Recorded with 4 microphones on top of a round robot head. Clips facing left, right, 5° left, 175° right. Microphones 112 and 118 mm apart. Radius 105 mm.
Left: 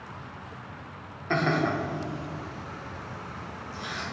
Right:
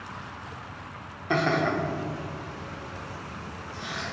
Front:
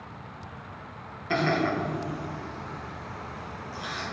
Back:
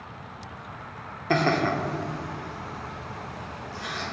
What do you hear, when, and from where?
1.3 s laughter: 165° right, 1.0 m; by 4.0 s 80° left, 1.8 m